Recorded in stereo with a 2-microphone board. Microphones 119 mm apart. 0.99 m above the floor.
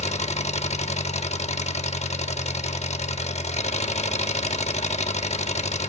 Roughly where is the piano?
No piano in this recording.